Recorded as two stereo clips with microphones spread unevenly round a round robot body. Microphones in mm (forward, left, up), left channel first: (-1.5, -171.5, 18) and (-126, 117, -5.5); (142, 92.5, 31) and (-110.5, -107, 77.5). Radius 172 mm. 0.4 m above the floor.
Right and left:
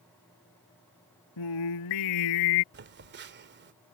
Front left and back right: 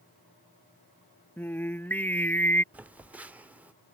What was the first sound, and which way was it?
Singing, 45° right.